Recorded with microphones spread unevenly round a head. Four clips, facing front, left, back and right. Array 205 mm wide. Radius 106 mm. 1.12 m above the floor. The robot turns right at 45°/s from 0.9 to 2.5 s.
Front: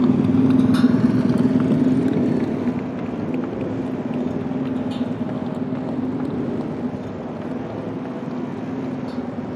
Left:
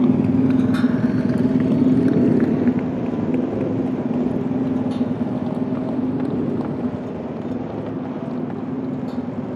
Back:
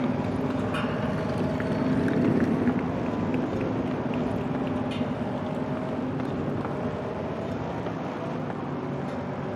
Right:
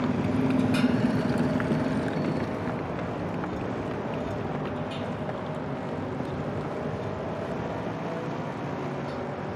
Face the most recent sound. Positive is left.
turn(degrees=55)